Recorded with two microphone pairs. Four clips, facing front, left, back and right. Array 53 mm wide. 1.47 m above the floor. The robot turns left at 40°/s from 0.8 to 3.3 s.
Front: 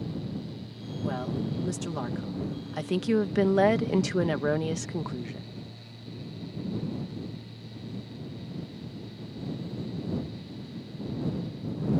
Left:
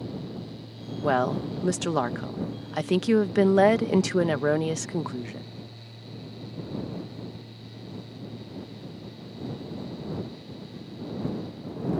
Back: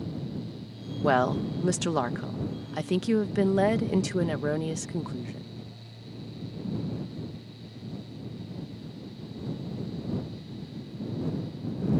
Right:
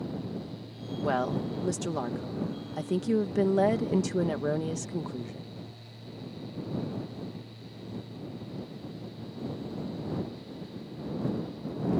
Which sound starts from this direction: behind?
A woman speaking, at 1.0 s.